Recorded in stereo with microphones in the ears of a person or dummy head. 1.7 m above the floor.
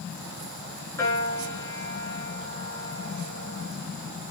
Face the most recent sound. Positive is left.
turn(degrees=20)  # may be behind; listen again after turning